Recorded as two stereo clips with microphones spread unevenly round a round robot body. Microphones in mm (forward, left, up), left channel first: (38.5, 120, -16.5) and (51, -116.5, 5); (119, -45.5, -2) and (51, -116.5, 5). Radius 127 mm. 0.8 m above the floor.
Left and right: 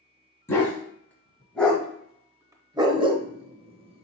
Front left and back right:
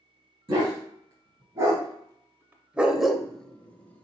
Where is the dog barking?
175° left, 1.2 m; by 4.0 s 30° right, 0.9 m.